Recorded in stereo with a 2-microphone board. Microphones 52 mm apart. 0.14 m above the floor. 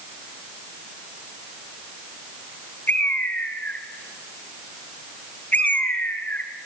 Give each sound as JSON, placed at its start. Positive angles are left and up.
{"t": 2.9, "sound": "a bird", "side_deg": 30, "distance_m": 1.1}